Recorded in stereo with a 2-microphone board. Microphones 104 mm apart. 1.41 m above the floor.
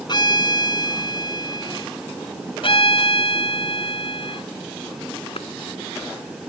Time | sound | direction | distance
0.1 | a violin | 45° left (ahead or behind) | ?
2.6 | a violin | 55° left (ahead or behind) | ?
5.4 | a clap | 65° left (ahead or behind) | ?